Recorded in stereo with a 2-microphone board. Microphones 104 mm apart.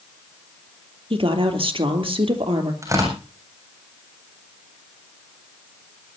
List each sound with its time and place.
1.1 s a woman speaking: 60° right (ahead or behind), 3 m
2.8 s tearing paper: 30° right (ahead or behind), 7 m